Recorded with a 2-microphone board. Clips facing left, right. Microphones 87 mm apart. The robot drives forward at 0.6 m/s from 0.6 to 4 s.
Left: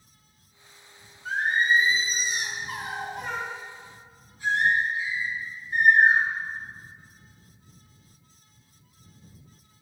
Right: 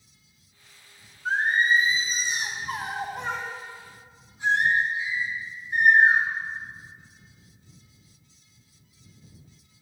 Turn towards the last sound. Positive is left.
turn(degrees=-20)  # may be behind; listen again after turning